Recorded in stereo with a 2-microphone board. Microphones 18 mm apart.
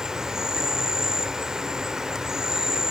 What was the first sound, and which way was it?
An insect, 35° right (ahead or behind).